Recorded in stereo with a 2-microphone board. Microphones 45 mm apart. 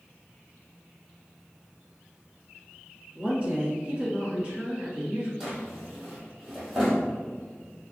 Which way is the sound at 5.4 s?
5° right (ahead or behind).